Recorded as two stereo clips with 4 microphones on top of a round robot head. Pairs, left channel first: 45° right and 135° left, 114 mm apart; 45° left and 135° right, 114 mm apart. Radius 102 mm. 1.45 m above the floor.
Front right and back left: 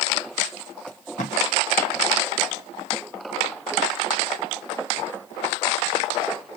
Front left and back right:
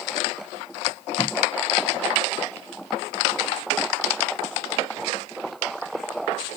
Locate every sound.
0.9 s tape being pulled: 30° right, 0.9 m